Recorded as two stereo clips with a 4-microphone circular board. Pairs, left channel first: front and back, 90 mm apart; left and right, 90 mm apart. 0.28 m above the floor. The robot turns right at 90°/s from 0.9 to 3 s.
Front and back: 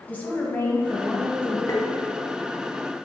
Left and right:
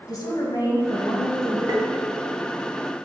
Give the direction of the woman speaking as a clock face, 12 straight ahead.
10 o'clock.